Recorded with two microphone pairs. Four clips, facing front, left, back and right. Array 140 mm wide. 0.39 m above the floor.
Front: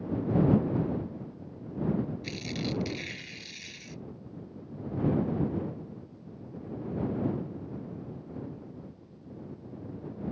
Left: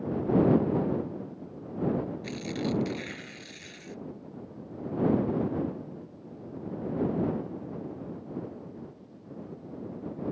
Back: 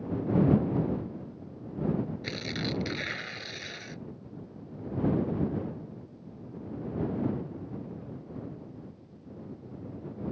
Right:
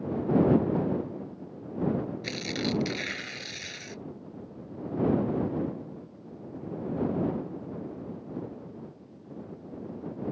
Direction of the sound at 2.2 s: 160° right.